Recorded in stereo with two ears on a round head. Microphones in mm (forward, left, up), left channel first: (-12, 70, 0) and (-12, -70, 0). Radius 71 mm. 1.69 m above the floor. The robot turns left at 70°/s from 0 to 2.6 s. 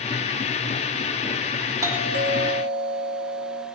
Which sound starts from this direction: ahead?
A doorbell, at 1.8 s.